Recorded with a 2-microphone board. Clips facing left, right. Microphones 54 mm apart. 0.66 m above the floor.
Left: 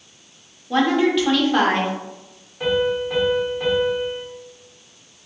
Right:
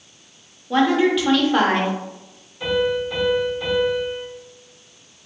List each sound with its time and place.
0.7 s a woman speaking: 5° right (ahead or behind), 0.6 m
2.6 s a piano: 40° left (ahead or behind), 1.7 m